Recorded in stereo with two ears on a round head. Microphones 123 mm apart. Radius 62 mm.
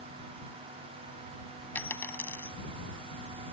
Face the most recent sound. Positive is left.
turn(degrees=15)  # may be behind; listen again after turning